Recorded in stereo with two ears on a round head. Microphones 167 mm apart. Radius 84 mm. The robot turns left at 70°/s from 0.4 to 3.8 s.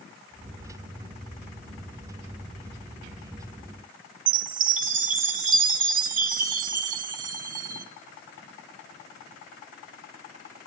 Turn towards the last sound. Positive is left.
turn(degrees=-45)  # may be behind; listen again after turning